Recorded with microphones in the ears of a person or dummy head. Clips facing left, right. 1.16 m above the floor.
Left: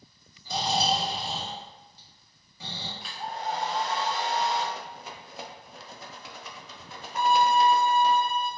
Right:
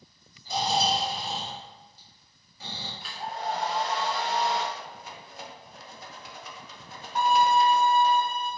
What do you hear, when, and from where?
0.5 s snoring: 70° left (ahead or behind), 1.5 m
3.0 s a hair dryer: centre (ahead or behind), 0.7 m
4.8 s a rattle: 60° left (ahead or behind), 0.5 m
7.2 s a violin: 65° right (ahead or behind), 1.1 m